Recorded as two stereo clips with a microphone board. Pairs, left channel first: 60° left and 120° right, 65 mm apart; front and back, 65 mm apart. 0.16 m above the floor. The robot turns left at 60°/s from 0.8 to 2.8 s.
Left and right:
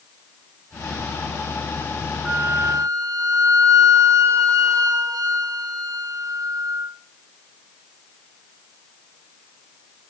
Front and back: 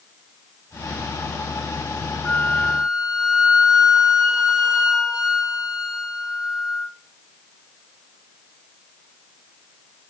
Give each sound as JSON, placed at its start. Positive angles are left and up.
{"t": 2.2, "sound": "a flute", "azimuth_deg": -75, "distance_m": 2.5}